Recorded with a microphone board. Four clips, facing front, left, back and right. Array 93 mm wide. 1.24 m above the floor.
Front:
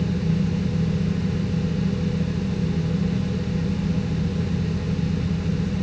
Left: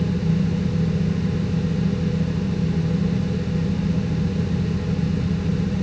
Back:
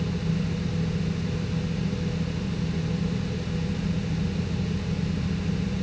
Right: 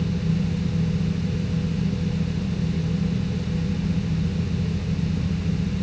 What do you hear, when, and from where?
Only background noise.